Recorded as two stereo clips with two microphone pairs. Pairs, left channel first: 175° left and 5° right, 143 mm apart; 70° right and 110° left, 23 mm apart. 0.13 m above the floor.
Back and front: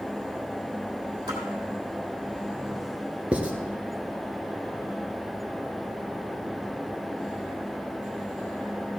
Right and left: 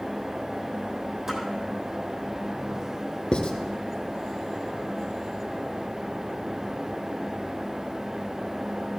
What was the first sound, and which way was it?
A splash, 55° left.